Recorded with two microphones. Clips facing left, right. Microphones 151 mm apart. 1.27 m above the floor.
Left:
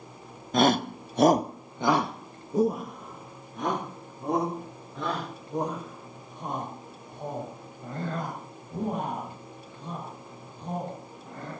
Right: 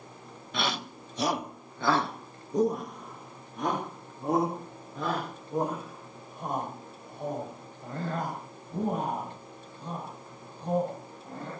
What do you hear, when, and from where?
0.5 s a shout: 40° left (ahead or behind), 0.8 m; by 11.5 s 5° right (ahead or behind), 11.5 m